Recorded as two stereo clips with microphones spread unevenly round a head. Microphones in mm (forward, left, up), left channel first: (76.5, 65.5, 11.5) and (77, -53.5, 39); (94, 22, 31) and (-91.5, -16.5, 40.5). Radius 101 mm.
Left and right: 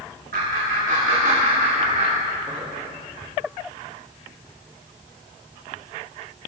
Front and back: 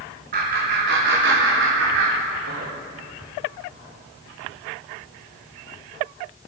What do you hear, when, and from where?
0.3 s laughter: 125° right, 2.5 m; by 2.7 s 155° right, 3.5 m